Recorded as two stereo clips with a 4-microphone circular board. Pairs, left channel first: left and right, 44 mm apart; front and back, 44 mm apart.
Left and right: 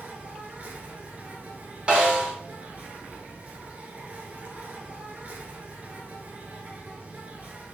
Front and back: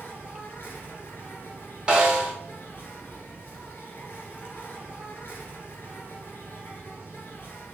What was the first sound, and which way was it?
An insect, 40° right.